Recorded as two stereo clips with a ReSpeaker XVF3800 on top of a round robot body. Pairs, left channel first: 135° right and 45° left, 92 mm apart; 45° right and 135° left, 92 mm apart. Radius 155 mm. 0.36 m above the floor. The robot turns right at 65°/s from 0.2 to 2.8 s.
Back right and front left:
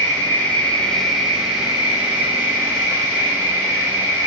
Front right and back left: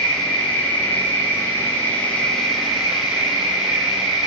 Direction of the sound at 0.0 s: 115° right.